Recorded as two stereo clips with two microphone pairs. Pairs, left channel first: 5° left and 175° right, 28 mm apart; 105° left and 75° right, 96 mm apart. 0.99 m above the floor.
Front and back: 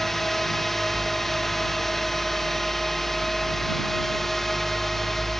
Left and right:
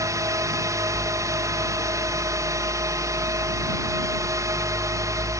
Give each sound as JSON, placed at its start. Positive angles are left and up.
{"t": 0.0, "sound": "a drone", "azimuth_deg": -75}